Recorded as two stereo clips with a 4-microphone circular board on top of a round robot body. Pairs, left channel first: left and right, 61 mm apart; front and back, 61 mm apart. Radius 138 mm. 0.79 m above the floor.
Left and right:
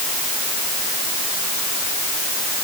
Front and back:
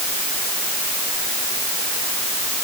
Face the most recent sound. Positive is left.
No sound to turn to.